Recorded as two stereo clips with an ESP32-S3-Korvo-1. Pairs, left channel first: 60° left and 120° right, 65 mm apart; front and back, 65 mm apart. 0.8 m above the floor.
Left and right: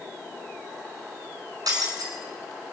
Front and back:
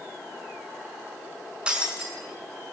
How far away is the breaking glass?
About 5.5 m.